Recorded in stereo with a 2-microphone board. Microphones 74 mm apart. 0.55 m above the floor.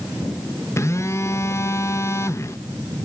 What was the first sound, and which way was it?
A phone buzzing, 40° left (ahead or behind).